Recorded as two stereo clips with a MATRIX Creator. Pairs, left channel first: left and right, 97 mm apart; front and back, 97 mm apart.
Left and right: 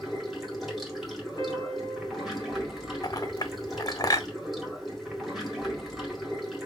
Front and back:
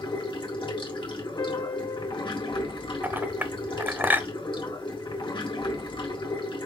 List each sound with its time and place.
0.0 s running water: 5° right, 1.7 m
1.4 s a piano: 40° left, 1.3 m
3.0 s a clink: 115° left, 0.7 m